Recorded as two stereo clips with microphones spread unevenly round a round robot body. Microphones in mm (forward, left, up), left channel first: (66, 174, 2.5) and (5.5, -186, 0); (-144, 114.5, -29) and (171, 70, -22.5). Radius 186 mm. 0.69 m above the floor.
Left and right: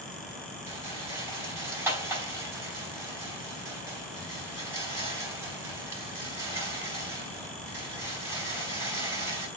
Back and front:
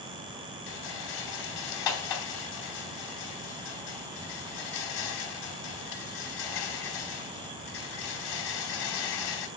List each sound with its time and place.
0.7 s a rattle: 175° left, 4 m